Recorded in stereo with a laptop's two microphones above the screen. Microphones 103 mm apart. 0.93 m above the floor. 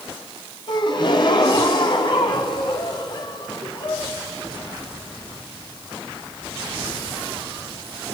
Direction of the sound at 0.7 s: 50° left (ahead or behind).